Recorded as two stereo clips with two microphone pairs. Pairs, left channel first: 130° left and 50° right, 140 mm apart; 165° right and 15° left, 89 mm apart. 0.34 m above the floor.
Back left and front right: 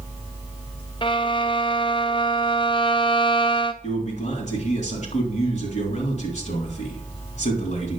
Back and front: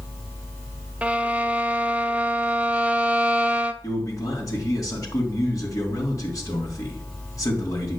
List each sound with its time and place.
1.0 s a violin: 85° left, 0.9 m
3.8 s a man speaking: 145° left, 3.5 m